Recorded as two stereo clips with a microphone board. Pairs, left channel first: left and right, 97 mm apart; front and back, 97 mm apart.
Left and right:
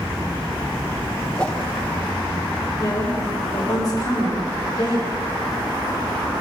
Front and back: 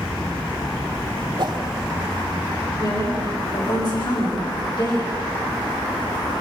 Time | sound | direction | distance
1.4 | a whoosh | 165° left | 1.6 m
2.8 | a woman speaking | 40° left | 7 m